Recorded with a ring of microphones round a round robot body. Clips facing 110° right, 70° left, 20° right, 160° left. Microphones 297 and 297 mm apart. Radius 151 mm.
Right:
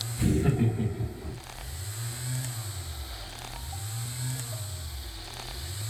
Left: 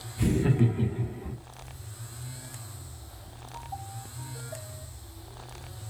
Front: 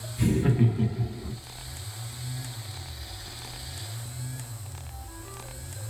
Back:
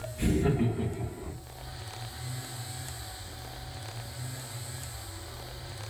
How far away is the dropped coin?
I don't hear a dropped coin.